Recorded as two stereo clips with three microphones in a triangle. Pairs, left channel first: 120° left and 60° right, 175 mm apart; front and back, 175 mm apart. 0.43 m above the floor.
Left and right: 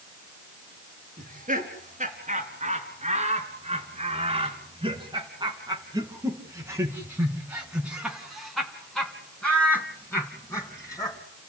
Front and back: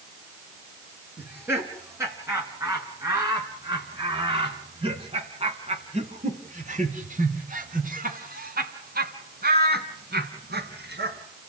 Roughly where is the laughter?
Right.